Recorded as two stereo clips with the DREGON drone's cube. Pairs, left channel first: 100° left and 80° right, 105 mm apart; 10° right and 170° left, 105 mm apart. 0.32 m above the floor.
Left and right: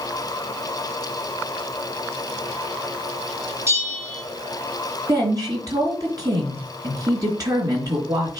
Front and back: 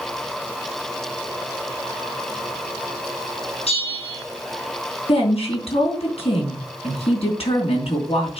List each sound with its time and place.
3.7 s a bell: 15° right, 4 m
5.1 s a woman speaking: 25° right, 3.5 m